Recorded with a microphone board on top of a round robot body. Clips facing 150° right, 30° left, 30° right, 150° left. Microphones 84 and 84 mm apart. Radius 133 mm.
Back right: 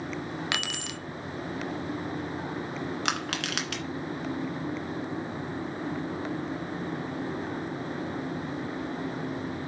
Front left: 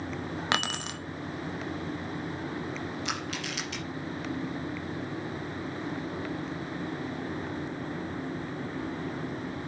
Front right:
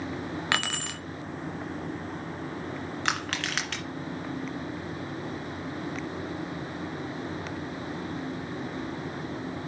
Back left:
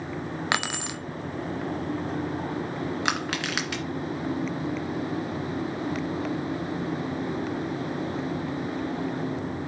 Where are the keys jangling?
80° left, 1.0 m.